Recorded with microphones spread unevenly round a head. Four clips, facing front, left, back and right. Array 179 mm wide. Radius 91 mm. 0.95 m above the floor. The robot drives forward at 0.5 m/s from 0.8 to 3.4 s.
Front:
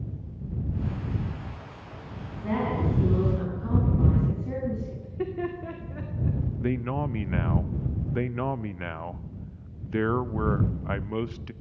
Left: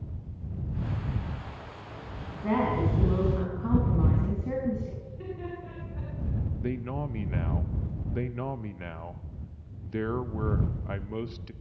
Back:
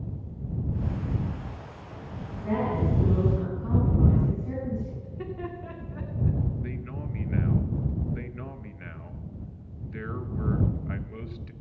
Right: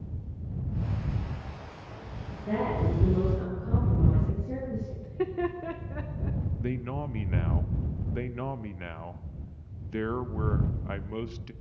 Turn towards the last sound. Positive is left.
turn(degrees=5)